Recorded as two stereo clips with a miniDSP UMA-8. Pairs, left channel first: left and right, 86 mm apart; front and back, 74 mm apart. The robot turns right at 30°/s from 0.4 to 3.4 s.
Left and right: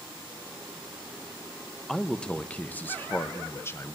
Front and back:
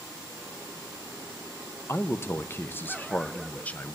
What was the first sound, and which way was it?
A man speaking, 5° left.